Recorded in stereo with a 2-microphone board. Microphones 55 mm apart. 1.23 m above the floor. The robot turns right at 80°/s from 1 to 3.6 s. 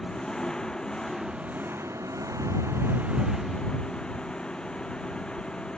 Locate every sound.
0.0 s an engine running: 165° left; by 5.8 s 15° left